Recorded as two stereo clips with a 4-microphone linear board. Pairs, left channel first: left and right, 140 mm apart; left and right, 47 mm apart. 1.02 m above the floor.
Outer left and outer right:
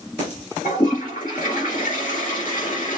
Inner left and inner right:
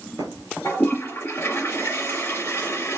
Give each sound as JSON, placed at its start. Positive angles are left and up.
{"t": 0.6, "sound": "a toilet flushing", "side_deg": 75, "distance_m": 4.0}